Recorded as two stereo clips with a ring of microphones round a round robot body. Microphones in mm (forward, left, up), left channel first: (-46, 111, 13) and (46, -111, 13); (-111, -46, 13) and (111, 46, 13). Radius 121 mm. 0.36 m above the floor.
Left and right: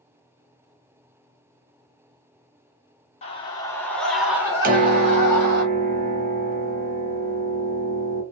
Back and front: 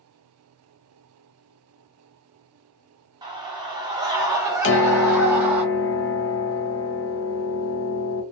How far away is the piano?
About 0.6 m.